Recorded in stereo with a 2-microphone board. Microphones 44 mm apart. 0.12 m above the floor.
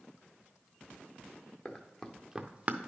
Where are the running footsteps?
25° left (ahead or behind), 1.1 m; by 2.9 s 40° right (ahead or behind), 0.7 m.